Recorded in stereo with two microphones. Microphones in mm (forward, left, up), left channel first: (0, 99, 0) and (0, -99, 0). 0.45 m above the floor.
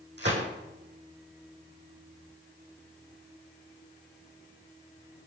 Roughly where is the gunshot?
Right.